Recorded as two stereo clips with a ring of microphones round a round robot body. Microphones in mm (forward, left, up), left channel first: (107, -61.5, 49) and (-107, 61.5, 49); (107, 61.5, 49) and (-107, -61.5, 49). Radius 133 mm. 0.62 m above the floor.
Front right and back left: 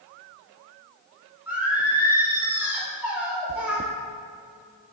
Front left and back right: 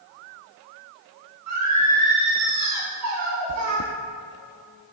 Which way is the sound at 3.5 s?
150° right.